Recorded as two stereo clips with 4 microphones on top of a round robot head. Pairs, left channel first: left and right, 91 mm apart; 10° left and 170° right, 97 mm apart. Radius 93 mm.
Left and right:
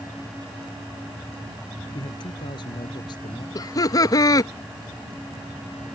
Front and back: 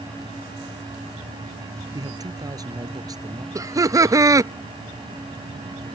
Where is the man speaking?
135° left.